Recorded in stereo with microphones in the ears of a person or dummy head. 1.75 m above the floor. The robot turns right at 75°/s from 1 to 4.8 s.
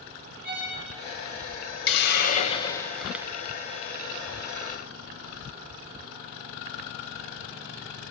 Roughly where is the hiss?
Left.